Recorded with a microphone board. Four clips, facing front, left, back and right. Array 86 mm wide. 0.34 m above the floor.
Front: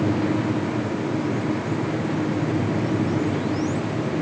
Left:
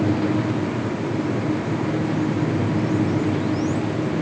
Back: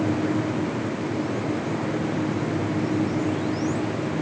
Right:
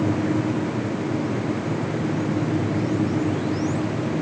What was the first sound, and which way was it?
Only background noise.